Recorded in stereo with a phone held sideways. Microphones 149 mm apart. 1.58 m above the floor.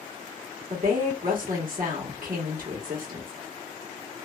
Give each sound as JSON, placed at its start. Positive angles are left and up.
{"t": 0.7, "sound": "a woman speaking", "side_deg": -70, "distance_m": 1.3}